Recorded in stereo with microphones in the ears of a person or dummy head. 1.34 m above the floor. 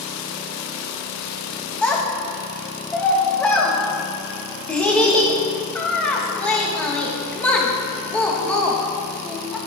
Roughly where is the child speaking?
Centre.